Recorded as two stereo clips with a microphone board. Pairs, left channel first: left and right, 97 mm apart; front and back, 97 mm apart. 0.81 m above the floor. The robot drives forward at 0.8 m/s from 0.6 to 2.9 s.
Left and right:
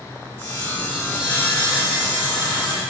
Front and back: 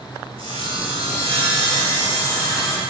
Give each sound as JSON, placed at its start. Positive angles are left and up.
{"t": 0.4, "sound": "sawing", "azimuth_deg": 155, "distance_m": 3.0}